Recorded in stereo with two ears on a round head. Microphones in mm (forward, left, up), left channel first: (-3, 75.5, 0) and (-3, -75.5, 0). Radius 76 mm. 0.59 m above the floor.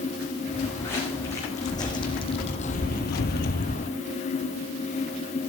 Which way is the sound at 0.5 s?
15° left (ahead or behind).